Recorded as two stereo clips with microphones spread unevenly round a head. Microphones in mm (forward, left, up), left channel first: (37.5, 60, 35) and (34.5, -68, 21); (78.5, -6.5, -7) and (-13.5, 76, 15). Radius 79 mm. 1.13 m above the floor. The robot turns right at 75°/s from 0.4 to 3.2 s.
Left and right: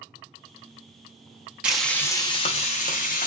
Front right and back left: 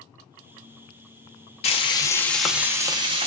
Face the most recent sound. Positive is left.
turn(degrees=110)